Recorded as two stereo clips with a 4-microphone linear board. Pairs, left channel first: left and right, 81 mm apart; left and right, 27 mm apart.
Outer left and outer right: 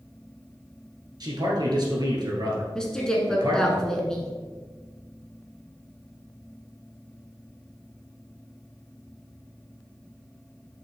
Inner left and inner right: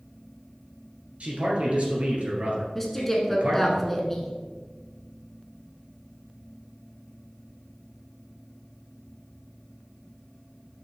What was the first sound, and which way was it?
A man speaking, 50° right (ahead or behind).